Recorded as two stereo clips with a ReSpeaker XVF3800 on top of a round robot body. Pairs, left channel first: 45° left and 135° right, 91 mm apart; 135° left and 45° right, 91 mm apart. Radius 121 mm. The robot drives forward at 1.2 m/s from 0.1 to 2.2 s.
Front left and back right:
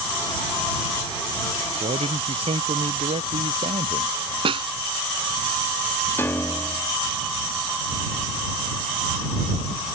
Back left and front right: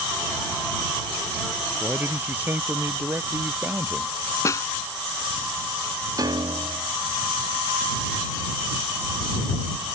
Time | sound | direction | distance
1.8 | a man speaking | 115° right | ?
4.5 | a snare drum | 165° right | ?
6.2 | a piano | 15° right | ?